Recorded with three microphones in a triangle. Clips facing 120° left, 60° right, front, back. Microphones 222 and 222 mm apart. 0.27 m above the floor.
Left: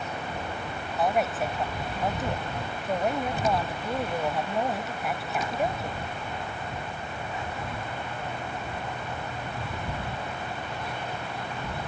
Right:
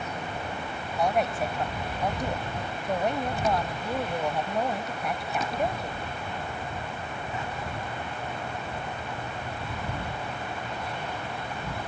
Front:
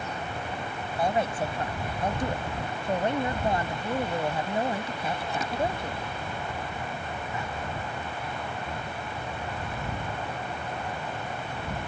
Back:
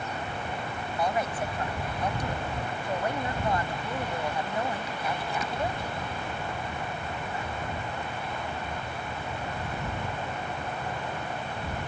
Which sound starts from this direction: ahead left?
A woman speaking, at 1.0 s.